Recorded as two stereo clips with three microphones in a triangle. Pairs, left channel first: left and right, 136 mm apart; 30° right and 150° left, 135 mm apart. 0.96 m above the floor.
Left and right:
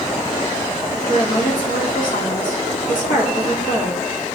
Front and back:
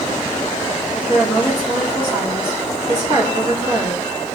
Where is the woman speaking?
95° left, 1.8 m.